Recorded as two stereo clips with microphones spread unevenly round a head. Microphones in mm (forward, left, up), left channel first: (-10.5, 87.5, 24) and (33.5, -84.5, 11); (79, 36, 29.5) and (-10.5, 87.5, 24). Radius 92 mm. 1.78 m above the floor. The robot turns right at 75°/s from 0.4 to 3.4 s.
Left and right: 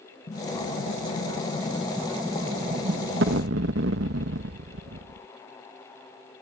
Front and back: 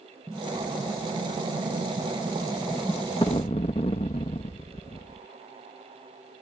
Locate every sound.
0.3 s an explosion: 65° left; by 5.3 s 70° right